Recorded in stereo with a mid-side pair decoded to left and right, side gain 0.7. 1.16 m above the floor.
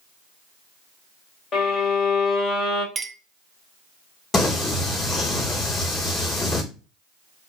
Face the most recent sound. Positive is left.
turn(degrees=20)